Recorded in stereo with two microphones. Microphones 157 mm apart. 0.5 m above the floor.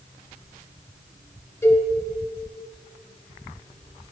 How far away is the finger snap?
No finger snap in this recording.